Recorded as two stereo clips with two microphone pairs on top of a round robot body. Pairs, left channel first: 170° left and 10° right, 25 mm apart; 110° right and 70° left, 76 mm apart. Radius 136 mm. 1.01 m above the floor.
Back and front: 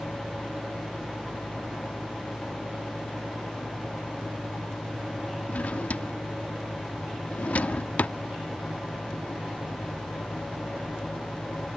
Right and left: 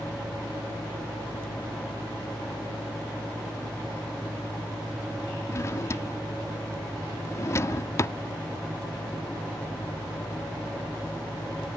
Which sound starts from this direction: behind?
A drawer, at 5.5 s.